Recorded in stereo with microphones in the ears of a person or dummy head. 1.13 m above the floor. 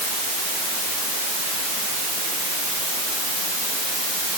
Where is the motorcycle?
I don't hear a motorcycle.